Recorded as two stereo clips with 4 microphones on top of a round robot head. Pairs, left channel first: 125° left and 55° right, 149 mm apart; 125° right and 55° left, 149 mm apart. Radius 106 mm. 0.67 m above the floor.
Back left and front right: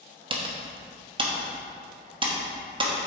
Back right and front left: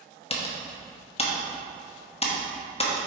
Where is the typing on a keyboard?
95° right, 1.1 m.